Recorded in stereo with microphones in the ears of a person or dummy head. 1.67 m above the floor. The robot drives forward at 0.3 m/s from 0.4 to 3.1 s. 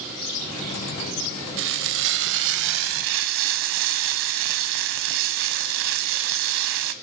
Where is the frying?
65° right (ahead or behind), 0.9 m; by 6.9 s 60° right (ahead or behind), 0.9 m.